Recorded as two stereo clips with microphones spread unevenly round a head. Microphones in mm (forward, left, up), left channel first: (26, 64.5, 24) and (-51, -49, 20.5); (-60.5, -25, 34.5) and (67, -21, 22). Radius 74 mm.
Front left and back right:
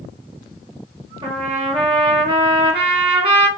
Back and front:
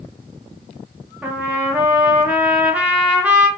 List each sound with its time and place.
1.2 s a trumpet: 80° right, 0.7 m